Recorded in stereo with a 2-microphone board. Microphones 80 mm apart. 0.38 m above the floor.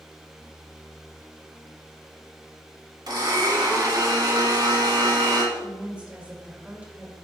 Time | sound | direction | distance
3.1 | a blender | 60° right (ahead or behind) | 2.5 m
5.5 | a woman speaking | 20° right (ahead or behind) | 1.7 m